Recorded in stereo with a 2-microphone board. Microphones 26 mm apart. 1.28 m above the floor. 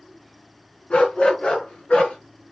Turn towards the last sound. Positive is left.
turn(degrees=55)  # may be behind; listen again after turning